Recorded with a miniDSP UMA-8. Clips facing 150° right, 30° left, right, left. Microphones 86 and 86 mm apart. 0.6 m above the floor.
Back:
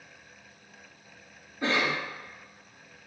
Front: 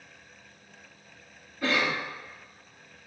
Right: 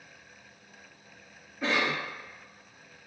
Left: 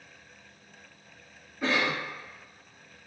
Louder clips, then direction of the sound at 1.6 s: Even, left 1 dB; straight behind.